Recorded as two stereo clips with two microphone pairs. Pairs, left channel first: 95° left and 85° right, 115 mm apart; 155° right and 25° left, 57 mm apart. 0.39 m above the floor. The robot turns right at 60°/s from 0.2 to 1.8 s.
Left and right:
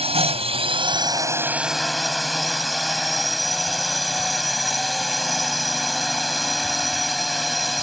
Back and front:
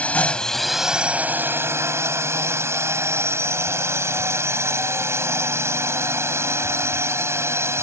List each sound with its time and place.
0.0 s a drone: 95° right; by 7.8 s 5° left